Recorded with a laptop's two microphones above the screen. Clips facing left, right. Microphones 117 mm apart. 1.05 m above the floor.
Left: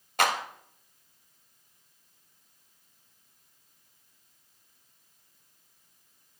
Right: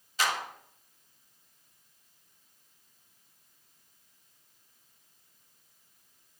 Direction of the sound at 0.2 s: 60° left (ahead or behind).